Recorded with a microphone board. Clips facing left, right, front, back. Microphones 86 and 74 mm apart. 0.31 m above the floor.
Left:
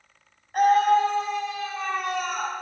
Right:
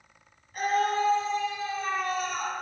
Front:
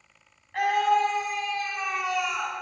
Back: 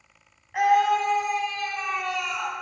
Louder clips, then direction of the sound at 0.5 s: Left 8 dB, back 3 dB; 100° left.